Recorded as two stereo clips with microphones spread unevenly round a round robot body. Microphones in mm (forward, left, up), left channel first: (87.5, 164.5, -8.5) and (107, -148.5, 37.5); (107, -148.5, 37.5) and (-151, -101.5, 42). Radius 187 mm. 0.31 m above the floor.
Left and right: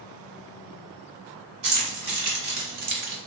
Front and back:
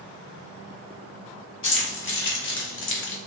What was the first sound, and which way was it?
Keys jangling, 50° right.